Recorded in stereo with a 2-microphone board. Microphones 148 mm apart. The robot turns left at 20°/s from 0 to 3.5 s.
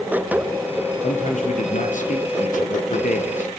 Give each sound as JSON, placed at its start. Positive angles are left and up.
{"t": 1.0, "sound": "a man speaking", "azimuth_deg": 125, "distance_m": 3.0}